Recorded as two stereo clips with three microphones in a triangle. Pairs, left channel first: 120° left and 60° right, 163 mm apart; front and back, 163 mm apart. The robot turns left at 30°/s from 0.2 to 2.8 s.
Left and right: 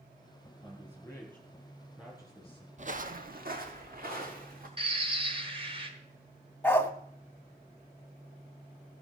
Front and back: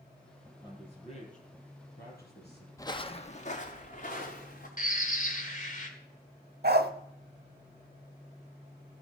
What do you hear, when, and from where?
0.6 s a man speaking: 60° left, 5.5 m; by 2.7 s straight ahead, 5.5 m
2.8 s footsteps: 65° right, 0.7 m; by 4.7 s 30° right, 2.5 m
4.8 s a bird: 10° right, 1.6 m
6.6 s a dog barking: 160° right, 0.8 m